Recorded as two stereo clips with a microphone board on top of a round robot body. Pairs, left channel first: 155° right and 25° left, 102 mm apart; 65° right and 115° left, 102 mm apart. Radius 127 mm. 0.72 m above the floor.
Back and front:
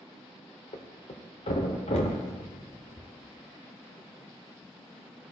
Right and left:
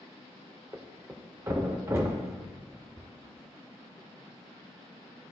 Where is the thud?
175° left, 0.6 m.